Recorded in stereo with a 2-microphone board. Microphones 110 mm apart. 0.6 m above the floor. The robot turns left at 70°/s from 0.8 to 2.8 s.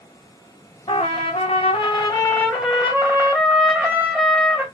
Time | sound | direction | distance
0.9 | a trumpet | 125° left | 1.1 m